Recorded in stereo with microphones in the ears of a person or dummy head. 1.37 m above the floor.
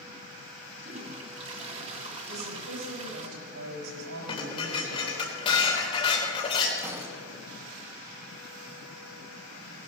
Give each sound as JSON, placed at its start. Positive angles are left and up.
{"t": 0.8, "sound": "a toilet flushing", "side_deg": -35, "distance_m": 1.8}
{"t": 2.3, "sound": "a woman speaking", "side_deg": -80, "distance_m": 6.0}
{"t": 4.3, "sound": "dishes clattering", "side_deg": 30, "distance_m": 3.0}
{"t": 6.8, "sound": "a gunshot", "side_deg": -15, "distance_m": 3.5}